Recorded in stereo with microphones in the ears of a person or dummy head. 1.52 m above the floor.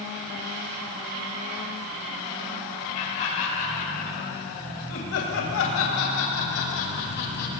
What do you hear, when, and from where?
2.9 s laughter: 40° left (ahead or behind), 3.5 m; by 7.5 s 50° left (ahead or behind), 3.5 m